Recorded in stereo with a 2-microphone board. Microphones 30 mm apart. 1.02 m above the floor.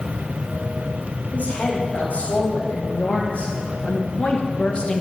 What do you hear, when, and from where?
1.3 s a woman speaking: 55° left (ahead or behind), 3.5 m; by 5.0 s 35° left (ahead or behind), 0.9 m